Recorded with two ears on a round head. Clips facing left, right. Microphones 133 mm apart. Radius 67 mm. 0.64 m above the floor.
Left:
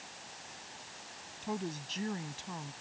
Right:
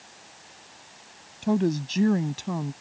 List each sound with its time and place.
1.4 s a woman speaking: 75° right (ahead or behind)